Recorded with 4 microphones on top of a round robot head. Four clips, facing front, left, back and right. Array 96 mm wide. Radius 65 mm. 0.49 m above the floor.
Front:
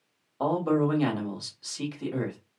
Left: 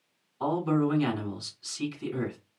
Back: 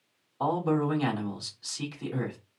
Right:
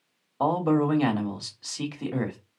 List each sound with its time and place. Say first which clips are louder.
0.4 s a man speaking: right 3 dB, front 2 dB; 75° right, 2.5 m